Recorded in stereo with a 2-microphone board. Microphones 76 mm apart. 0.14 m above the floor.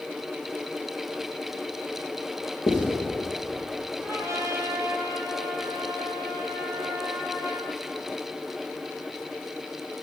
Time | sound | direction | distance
2.7 | writing | 60° left (ahead or behind) | 4 m
4.0 | a trumpet | 35° right (ahead or behind) | 2 m